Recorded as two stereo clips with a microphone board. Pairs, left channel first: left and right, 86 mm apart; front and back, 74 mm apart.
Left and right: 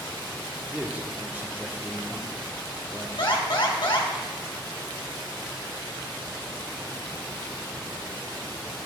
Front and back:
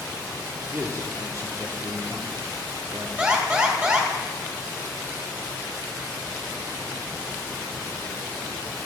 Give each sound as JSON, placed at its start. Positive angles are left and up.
{"t": 0.7, "sound": "a man speaking", "azimuth_deg": -150, "distance_m": 1.1}
{"t": 3.2, "sound": "an alarm", "azimuth_deg": 110, "distance_m": 2.5}